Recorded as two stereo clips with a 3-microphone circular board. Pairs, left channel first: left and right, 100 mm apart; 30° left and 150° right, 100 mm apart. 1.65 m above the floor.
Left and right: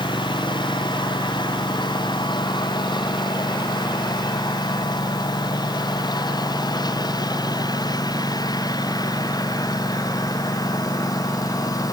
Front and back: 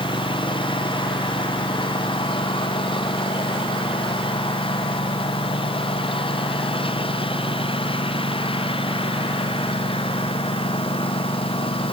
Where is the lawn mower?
55° left; by 11.9 s 40° left.